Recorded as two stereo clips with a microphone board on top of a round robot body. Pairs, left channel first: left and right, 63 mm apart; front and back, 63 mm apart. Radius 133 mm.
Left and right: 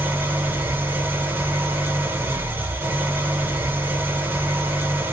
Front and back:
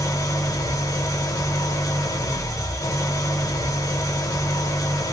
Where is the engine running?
30° right, 0.8 m.